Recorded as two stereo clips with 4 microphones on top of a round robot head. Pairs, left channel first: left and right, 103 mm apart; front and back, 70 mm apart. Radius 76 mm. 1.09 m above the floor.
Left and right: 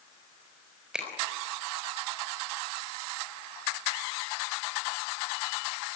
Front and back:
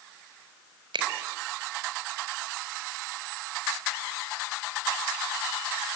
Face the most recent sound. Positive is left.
turn(degrees=-175)